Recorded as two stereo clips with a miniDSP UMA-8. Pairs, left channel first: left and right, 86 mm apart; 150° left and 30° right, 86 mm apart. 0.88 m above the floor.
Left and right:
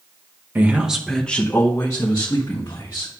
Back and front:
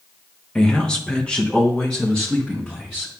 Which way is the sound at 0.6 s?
135° right.